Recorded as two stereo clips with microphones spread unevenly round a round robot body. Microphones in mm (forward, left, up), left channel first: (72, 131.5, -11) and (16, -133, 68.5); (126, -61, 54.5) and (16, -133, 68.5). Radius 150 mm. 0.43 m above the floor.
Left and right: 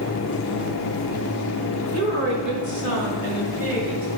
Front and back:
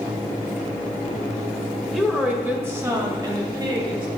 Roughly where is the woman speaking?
Ahead right.